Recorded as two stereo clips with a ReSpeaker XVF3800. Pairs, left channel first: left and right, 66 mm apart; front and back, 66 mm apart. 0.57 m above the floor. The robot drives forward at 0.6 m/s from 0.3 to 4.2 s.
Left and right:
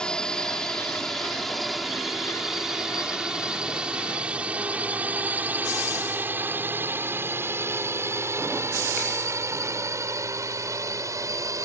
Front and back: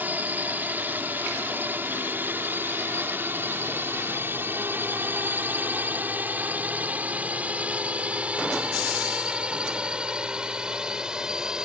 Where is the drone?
155° left; by 11.7 s 105° right.